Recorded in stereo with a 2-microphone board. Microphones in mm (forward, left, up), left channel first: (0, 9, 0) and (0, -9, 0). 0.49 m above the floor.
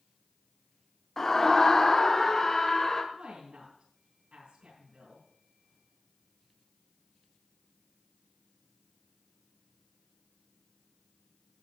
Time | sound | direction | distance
1.2 | a scream | 20° left (ahead or behind) | 0.8 m
3.1 | a woman speaking | 75° right (ahead or behind) | 5.5 m